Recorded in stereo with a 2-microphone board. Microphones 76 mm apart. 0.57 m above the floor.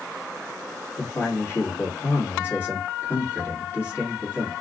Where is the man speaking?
30° left (ahead or behind), 1.6 m.